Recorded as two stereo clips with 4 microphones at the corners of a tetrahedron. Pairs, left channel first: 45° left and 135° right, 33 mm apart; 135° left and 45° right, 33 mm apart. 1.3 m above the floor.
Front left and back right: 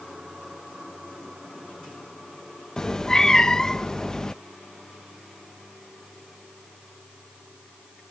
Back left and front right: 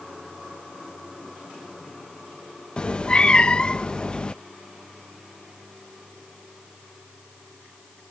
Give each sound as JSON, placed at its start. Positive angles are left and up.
{"t": 2.8, "sound": "a cat meowing", "azimuth_deg": 100}